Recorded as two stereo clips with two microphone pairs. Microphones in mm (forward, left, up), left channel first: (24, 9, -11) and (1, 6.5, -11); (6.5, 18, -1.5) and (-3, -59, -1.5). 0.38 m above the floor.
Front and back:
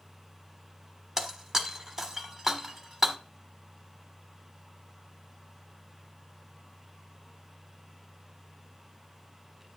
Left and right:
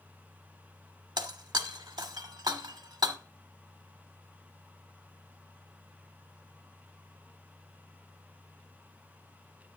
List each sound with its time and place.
1.2 s breaking glass: 100° right, 1.1 m